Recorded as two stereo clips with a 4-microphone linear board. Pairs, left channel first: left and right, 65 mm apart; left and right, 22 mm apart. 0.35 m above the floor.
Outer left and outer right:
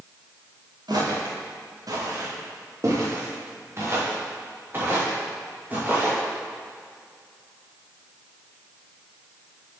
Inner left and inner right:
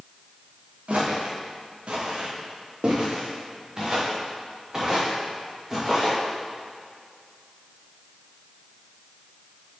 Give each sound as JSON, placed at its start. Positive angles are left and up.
{"t": 0.9, "sound": "footsteps", "side_deg": -70, "distance_m": 3.0}